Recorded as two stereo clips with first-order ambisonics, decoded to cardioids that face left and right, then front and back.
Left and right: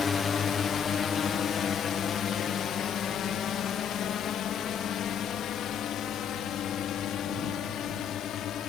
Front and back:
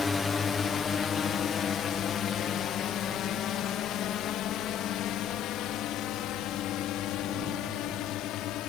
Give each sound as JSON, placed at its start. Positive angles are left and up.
{"t": 0.0, "sound": "a drone", "azimuth_deg": 50}